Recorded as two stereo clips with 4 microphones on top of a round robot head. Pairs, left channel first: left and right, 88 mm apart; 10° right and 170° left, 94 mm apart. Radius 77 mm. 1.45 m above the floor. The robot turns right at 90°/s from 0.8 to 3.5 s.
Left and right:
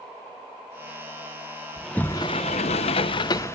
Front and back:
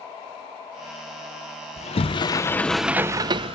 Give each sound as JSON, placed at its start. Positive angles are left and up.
{"t": 1.8, "sound": "a sliding door", "azimuth_deg": -10, "distance_m": 0.8}